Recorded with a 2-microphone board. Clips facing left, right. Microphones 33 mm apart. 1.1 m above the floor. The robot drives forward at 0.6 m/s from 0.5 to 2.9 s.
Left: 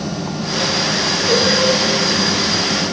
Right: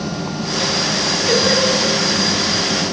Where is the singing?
5° right (ahead or behind), 1.6 m.